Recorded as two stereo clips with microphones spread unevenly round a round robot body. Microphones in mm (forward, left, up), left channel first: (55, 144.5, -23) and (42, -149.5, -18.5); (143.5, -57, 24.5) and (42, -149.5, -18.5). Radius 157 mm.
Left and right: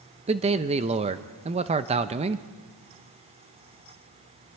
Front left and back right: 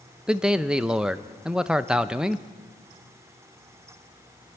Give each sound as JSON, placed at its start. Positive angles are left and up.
{"t": 0.3, "sound": "a man speaking", "azimuth_deg": -130, "distance_m": 0.6}